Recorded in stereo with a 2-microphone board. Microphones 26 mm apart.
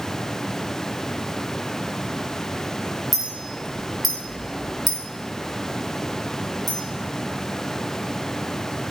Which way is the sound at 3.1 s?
Centre (ahead or behind).